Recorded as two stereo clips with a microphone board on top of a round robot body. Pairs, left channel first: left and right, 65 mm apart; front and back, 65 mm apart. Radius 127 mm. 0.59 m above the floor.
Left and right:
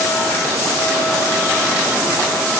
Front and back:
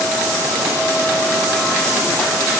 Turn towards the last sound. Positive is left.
No sound to turn to.